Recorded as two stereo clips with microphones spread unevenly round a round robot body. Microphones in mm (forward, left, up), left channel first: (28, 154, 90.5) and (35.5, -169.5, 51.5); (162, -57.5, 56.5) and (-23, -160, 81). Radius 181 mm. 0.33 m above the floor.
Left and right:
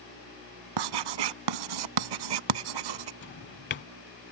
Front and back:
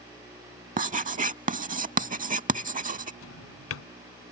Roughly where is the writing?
Right.